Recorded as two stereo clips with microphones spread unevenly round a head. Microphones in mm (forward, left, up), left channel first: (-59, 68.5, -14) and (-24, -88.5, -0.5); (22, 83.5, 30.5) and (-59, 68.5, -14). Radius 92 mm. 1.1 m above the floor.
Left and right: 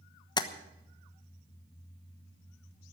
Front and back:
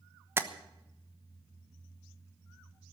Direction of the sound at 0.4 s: 160° left.